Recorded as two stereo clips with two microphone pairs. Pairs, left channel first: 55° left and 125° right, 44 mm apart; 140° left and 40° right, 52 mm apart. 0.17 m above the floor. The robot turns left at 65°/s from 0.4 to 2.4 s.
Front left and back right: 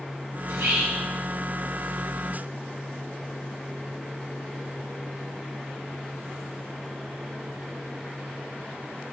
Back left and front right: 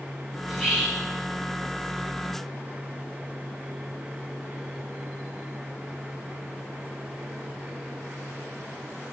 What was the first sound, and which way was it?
Whispering, 120° right.